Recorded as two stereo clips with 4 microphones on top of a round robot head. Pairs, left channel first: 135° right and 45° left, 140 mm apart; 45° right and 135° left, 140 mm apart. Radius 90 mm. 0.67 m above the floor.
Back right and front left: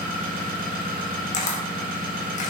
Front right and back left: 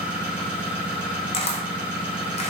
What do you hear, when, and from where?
0.0 s an engine running: 55° left, 1.2 m
1.3 s a camera shutter: 95° right, 0.6 m